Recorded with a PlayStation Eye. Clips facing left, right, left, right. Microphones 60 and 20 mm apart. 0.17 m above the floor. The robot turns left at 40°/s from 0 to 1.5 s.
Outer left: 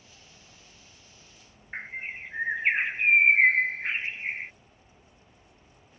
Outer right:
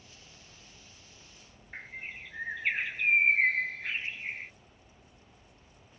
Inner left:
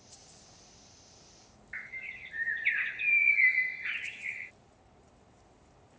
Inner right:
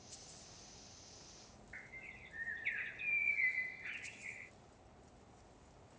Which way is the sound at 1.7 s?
40° left (ahead or behind).